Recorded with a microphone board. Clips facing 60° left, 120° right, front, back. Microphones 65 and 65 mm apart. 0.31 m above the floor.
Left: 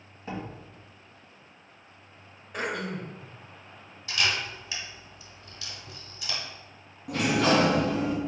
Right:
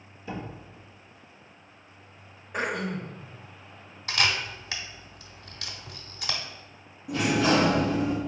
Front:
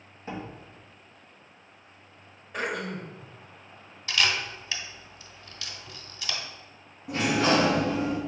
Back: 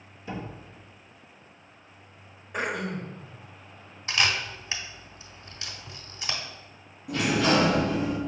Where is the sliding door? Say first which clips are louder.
Even, even; 45° left, 1.7 m.